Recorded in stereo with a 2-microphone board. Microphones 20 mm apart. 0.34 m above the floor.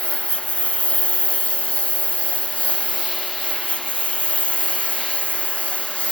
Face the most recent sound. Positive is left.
turn(degrees=85)